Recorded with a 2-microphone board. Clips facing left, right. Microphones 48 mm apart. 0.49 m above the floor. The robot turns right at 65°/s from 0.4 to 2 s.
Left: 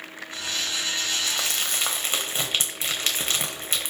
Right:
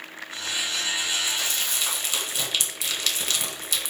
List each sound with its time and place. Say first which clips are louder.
1.3 s crumpling: left 1 dB; 70° left (ahead or behind), 1.4 m; by 3.9 s 35° left (ahead or behind), 1.4 m